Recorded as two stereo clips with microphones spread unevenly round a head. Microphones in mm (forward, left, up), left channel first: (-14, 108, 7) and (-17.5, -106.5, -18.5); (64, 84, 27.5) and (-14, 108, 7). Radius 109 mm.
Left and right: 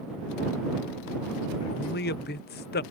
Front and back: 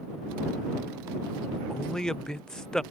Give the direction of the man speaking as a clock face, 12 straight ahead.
10 o'clock.